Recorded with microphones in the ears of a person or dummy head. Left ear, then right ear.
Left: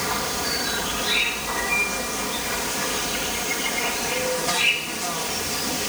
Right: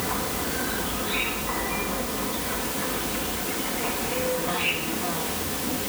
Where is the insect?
75° left (ahead or behind).